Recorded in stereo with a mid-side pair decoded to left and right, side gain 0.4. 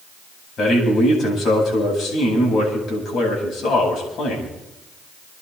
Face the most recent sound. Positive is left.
turn(degrees=65)